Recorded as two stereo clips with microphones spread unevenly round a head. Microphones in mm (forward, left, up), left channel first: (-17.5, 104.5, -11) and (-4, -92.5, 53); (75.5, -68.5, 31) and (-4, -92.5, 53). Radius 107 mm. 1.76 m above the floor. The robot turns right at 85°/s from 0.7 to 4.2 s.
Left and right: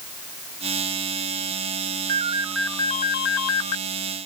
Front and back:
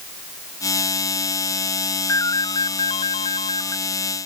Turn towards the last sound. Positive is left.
turn(degrees=135)